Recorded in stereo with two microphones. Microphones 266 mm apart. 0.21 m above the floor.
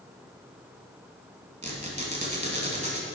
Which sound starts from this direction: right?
A squeak, at 1.6 s.